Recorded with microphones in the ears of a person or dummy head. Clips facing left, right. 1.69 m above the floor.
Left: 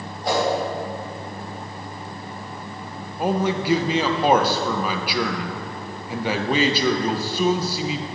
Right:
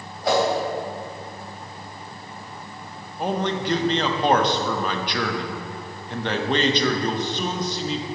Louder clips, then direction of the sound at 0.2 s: Right 2 dB; 65° right (ahead or behind).